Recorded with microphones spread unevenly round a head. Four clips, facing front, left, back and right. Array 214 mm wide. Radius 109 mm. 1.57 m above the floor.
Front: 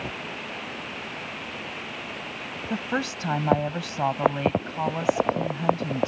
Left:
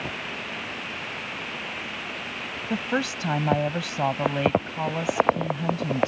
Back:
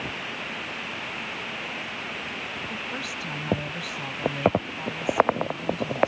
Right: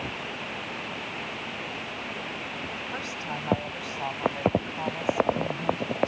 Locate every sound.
2.7 s a woman speaking: 55° left